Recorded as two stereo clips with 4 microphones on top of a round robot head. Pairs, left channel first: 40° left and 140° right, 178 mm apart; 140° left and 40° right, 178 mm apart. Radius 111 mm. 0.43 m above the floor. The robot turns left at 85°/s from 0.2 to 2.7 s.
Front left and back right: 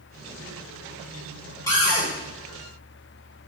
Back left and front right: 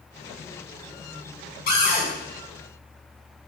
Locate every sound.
1.7 s a cupboard door: 110° left, 3 m; by 2.1 s 75° left, 3 m